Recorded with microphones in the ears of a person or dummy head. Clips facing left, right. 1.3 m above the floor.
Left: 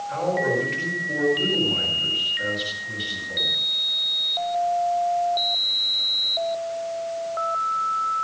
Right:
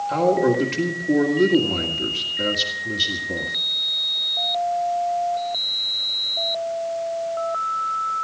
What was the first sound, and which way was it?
A man speaking, 60° right (ahead or behind).